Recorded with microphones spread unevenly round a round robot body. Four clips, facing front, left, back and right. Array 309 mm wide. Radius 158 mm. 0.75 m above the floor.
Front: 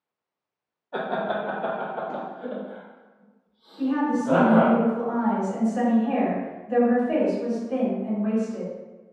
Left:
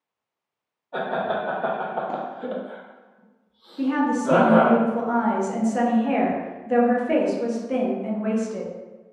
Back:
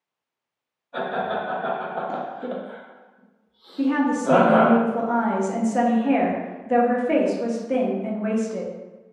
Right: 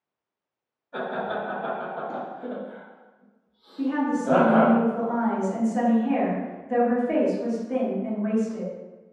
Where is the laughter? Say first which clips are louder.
Left 4 dB, back 1 dB; 10° left, 0.6 m; by 4.8 s 175° left, 1.7 m.